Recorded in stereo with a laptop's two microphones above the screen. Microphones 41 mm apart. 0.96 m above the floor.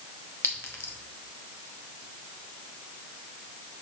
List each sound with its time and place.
0.4 s a clink: 80° left, 1.0 m